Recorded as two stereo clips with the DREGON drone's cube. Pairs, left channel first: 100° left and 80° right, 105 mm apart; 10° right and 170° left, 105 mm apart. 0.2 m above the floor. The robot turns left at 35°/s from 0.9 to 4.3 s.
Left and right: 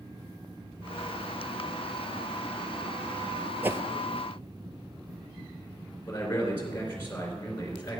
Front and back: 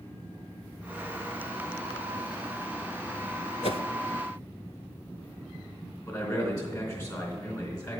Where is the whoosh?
10° right, 0.6 m; by 3.8 s 15° right, 0.6 m.